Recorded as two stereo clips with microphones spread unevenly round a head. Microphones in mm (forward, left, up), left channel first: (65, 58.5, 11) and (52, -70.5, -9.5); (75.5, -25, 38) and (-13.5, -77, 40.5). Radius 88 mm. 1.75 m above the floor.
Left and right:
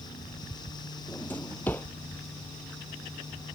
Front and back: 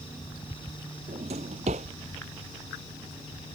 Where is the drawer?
165° left.